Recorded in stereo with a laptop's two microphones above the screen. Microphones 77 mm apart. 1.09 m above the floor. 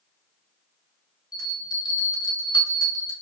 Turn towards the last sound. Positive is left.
turn(degrees=65)  # may be behind; listen again after turning